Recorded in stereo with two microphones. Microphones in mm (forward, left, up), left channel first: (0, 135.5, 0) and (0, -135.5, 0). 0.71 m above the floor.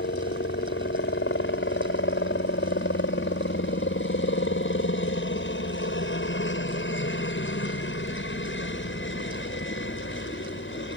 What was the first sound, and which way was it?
A helicopter, 45° left (ahead or behind).